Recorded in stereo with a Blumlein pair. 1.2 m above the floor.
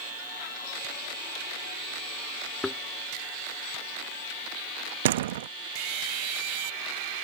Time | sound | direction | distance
2.6 | a thud | 5° left | ?
5.0 | a door slam | 55° right | ?